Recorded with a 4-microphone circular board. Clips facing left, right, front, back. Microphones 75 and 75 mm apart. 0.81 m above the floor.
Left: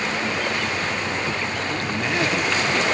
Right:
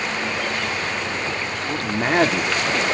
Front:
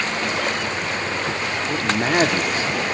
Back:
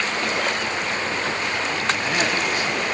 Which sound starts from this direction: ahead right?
A man speaking, at 1.7 s.